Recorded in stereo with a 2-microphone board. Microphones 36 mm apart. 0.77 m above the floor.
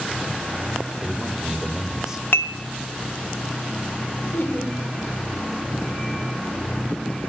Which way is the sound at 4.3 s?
75° left (ahead or behind).